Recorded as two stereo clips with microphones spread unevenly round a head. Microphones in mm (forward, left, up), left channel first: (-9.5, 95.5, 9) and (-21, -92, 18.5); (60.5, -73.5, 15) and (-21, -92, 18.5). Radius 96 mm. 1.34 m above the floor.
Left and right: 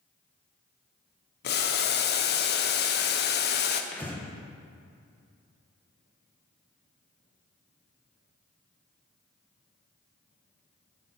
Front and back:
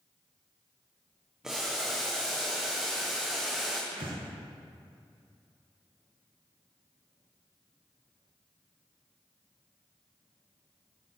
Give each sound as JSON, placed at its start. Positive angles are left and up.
{"t": 1.4, "sound": "boiling", "azimuth_deg": 105, "distance_m": 0.9}
{"t": 3.9, "sound": "breathing", "azimuth_deg": 165, "distance_m": 1.6}